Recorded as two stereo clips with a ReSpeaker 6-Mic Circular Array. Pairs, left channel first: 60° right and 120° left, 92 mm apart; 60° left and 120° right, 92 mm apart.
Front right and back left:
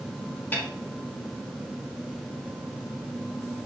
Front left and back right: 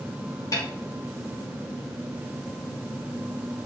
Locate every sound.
0.5 s a snare drum: 10° left, 2.5 m